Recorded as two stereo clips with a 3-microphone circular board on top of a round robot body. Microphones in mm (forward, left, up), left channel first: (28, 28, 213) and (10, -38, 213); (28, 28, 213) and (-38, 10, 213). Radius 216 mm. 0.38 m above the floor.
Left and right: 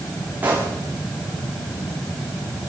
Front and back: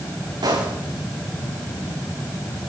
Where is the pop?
170° right, 9 m.